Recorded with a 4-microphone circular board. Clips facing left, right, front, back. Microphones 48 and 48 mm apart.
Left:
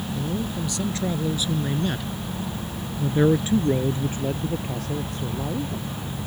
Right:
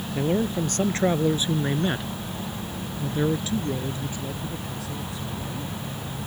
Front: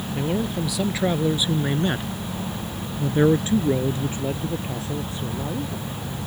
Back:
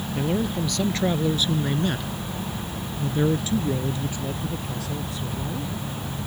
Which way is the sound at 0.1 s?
85° right.